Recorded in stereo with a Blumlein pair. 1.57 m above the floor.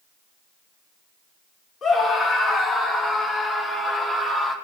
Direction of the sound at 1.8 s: 15° left.